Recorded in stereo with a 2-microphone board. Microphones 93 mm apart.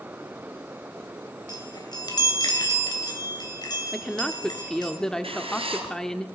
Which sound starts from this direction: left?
A chime, at 1.5 s.